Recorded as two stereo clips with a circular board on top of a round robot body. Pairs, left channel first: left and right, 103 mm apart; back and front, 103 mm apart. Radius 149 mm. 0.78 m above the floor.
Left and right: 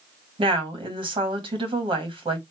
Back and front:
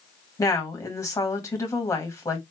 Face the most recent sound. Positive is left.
turn(degrees=-120)